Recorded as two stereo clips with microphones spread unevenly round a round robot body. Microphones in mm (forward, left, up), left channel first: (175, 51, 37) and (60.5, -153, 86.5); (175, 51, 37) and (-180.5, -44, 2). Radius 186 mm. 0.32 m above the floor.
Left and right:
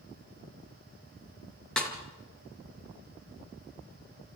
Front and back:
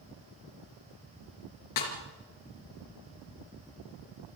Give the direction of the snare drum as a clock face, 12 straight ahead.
1 o'clock.